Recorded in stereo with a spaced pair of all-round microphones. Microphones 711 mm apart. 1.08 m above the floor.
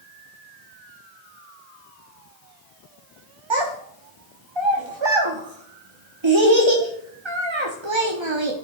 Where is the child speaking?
40° right (ahead or behind), 1.0 m.